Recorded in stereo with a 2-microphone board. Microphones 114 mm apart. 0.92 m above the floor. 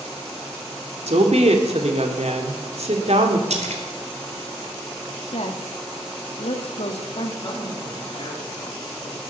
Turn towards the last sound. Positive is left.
turn(degrees=40)  # may be behind; listen again after turning